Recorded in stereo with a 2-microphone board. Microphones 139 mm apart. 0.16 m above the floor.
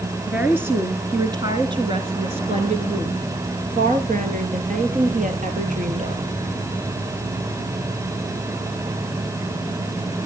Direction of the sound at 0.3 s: 10° right (ahead or behind).